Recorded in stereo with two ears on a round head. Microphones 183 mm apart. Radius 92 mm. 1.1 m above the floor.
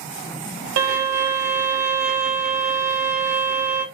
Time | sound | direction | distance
0.8 | a violin | 80° right | 0.8 m